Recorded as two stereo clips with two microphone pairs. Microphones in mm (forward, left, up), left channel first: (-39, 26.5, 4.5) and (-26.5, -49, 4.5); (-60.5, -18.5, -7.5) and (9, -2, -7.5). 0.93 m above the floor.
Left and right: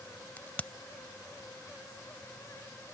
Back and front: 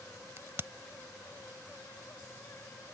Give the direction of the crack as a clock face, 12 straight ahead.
11 o'clock.